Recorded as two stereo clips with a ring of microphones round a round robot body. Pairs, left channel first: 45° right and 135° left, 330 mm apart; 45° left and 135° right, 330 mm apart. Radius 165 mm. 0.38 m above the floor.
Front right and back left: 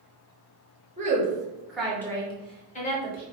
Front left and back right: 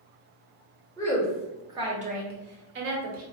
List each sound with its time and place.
1.0 s a woman speaking: 110° left, 1.1 m; by 3.2 s 100° right, 1.5 m